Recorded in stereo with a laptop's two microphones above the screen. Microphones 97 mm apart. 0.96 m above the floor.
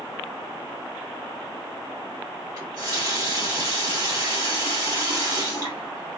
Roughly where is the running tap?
Right.